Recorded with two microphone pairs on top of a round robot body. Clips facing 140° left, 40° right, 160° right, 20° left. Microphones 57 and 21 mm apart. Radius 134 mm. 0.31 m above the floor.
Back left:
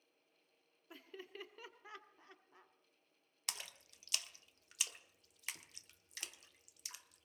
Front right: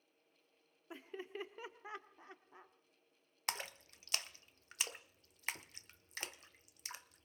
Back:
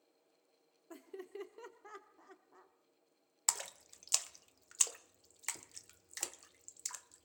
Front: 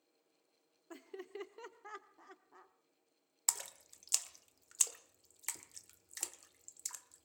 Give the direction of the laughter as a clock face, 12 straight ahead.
12 o'clock.